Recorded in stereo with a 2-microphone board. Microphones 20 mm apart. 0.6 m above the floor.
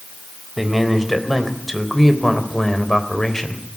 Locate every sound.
0.6 s a man speaking: 5° right (ahead or behind), 3.5 m; by 3.6 s 25° left (ahead or behind), 3 m